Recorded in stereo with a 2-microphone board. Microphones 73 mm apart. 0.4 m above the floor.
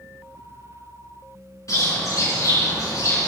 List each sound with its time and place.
1.7 s a bird: 50° left (ahead or behind), 4.5 m